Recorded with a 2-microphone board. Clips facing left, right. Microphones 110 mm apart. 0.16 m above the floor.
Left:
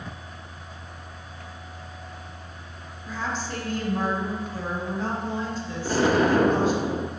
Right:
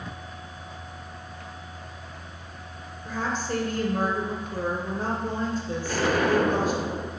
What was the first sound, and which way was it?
A woman speaking, 50° right (ahead or behind).